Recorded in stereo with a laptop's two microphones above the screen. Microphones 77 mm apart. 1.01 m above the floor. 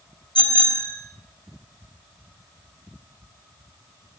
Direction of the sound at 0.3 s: 85° left.